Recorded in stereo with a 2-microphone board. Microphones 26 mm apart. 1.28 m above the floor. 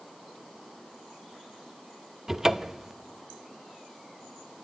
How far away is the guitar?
No guitar in this recording.